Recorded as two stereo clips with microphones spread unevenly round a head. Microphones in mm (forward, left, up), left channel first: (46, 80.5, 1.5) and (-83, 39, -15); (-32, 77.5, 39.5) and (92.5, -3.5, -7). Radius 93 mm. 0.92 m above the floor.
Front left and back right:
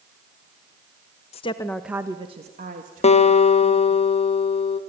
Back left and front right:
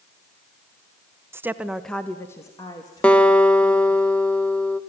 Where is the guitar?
60° left, 1.0 m.